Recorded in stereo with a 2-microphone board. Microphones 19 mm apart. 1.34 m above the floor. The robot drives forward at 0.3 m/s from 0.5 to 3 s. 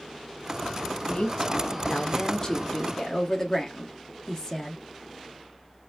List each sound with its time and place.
1.0 s a woman speaking: 45° left (ahead or behind), 0.7 m; by 4.8 s 25° left (ahead or behind), 1.1 m